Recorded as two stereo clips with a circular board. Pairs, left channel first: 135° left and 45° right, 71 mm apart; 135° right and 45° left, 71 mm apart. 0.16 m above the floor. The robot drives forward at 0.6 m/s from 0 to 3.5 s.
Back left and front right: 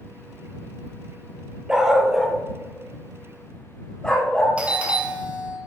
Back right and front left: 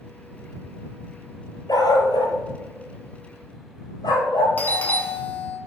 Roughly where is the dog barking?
Behind right.